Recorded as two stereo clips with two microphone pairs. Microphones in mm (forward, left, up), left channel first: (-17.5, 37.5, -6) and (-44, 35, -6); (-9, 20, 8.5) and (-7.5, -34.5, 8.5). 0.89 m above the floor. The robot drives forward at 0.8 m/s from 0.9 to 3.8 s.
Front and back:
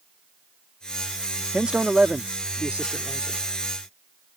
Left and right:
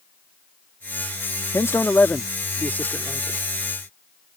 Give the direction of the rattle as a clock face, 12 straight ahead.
No rattle in this recording.